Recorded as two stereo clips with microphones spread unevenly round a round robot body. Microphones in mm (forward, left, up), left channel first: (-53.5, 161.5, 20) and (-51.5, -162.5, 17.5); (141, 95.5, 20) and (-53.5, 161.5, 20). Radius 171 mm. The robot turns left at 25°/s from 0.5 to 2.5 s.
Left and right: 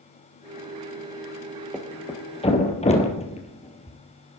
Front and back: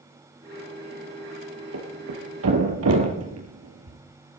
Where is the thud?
Straight behind, 2.5 m; by 4.0 s 160° left, 2.5 m.